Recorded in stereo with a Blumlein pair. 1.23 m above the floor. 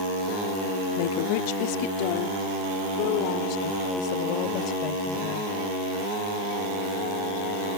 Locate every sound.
1.0 s a woman speaking: 50° left; by 5.5 s 35° left